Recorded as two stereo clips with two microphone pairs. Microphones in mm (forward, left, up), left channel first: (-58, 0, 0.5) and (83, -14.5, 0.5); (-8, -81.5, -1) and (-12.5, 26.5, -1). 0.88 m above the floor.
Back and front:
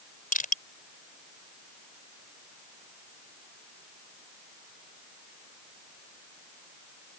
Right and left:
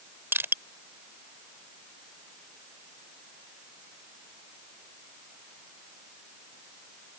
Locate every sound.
0.3 s crushing: 160° left